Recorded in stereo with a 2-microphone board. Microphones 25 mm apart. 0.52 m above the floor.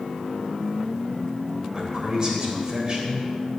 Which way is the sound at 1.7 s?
25° right (ahead or behind).